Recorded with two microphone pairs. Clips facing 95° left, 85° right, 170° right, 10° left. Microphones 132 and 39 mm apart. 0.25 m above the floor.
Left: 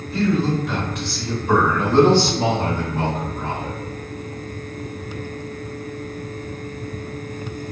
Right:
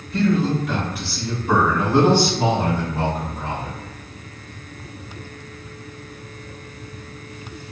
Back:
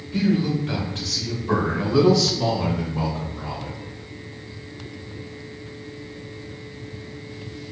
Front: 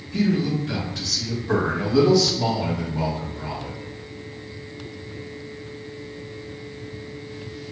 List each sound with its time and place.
0.1 s a man speaking: straight behind, 1.6 m; by 3.8 s 160° right, 3.5 m